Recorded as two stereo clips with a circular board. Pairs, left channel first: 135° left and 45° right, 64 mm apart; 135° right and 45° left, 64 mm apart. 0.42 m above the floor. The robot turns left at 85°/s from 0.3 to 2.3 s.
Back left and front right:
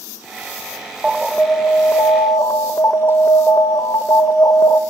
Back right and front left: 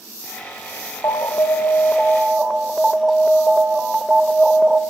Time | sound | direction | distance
1.0 | an alarm | 125° right | 0.7 m